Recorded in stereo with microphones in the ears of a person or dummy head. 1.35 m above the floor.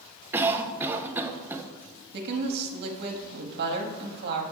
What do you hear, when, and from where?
0.3 s a cough: 15° right (ahead or behind), 0.5 m
2.1 s a woman speaking: 50° right (ahead or behind), 0.7 m